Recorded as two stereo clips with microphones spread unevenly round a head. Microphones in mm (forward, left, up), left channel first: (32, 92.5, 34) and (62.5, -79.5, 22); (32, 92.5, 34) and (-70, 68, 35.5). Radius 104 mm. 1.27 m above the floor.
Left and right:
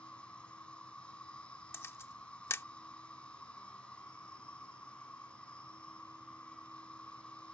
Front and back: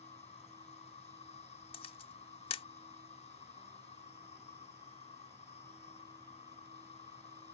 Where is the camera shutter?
30° left.